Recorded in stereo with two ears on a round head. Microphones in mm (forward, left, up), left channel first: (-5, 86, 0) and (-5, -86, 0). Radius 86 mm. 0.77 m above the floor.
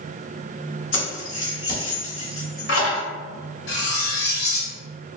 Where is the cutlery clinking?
65° left (ahead or behind), 1.3 m.